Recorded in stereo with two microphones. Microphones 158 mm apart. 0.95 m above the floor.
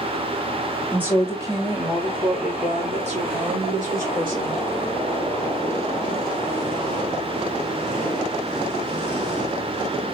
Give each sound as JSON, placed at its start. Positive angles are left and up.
{"t": 0.9, "sound": "a woman speaking", "side_deg": -10, "distance_m": 1.9}